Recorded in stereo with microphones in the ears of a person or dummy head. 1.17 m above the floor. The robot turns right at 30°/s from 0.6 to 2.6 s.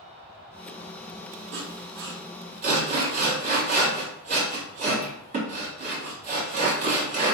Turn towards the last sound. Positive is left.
turn(degrees=-45)  # may be behind; listen again after turning